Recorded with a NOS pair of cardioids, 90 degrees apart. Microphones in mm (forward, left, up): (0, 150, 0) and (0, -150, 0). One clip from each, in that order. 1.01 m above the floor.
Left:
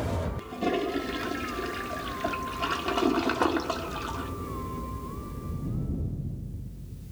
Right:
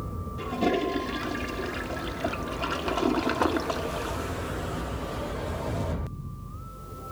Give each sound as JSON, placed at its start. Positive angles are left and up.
{"t": 0.4, "sound": "a toilet flushing", "azimuth_deg": -15, "distance_m": 1.2}